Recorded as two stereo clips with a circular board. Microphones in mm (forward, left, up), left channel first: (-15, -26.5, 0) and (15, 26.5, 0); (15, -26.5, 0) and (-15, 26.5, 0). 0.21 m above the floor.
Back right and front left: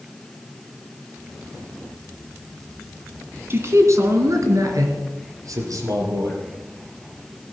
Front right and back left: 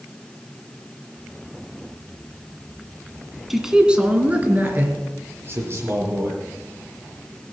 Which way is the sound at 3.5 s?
35° left.